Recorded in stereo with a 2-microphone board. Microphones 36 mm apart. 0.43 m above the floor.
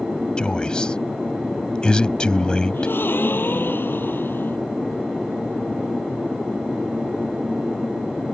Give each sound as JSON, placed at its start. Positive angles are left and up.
{"t": 0.4, "sound": "a man speaking", "side_deg": 25}
{"t": 2.7, "sound": "a gasp", "side_deg": 80}